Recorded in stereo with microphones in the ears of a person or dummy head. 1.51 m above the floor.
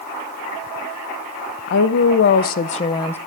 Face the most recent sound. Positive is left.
turn(degrees=10)  # may be behind; listen again after turning